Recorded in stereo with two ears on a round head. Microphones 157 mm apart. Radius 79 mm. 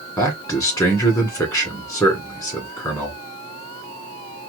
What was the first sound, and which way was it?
A man speaking, 20° left (ahead or behind).